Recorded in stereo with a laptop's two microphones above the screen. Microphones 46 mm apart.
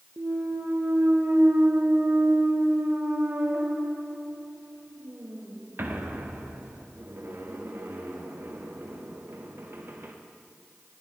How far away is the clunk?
About 0.7 m.